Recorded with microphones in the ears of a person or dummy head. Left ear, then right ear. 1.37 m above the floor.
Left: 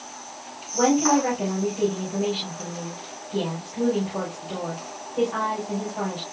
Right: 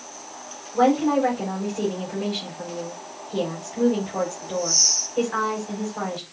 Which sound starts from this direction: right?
A woman speaking, at 0.7 s.